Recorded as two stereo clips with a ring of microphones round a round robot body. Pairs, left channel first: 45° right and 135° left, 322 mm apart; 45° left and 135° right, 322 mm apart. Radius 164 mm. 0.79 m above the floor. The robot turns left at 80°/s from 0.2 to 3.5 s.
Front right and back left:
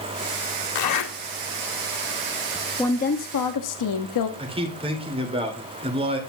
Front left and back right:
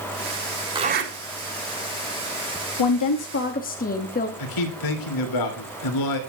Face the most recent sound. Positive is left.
turn(degrees=60)